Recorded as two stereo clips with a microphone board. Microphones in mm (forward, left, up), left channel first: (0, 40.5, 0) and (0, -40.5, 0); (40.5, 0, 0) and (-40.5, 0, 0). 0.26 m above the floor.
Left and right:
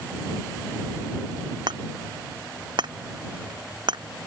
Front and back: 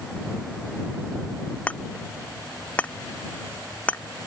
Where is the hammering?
75° right.